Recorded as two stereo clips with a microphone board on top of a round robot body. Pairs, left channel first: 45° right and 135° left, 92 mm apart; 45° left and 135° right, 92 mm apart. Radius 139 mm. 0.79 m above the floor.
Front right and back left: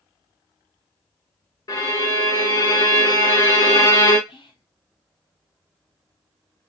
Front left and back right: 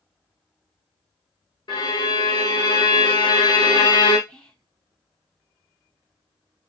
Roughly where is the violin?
Ahead.